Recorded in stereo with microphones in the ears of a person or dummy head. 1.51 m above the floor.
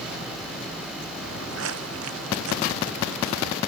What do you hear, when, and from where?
1.2 s footsteps: 75° right (ahead or behind)